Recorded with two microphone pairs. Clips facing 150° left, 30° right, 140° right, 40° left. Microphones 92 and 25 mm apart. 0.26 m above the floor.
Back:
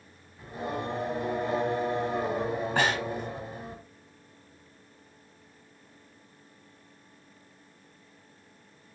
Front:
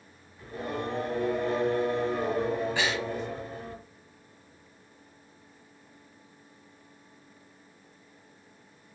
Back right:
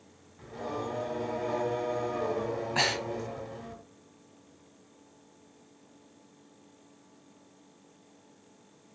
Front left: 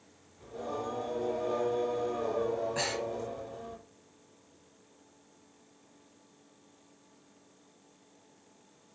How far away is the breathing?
About 0.7 m.